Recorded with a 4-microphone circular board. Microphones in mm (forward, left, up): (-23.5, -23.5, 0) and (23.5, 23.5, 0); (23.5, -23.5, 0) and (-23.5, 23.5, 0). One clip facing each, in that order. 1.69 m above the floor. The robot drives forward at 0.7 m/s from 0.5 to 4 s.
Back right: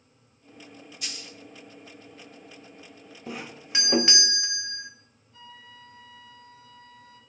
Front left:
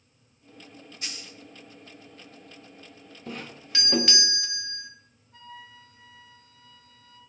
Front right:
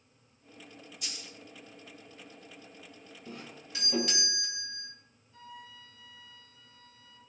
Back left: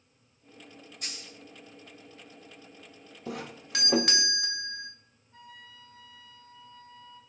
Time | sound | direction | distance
1.0 | a dropped coin | 100° left | 2.5 m
3.3 | a doorbell | 140° left | 0.6 m
5.3 | a flute | 85° left | 5 m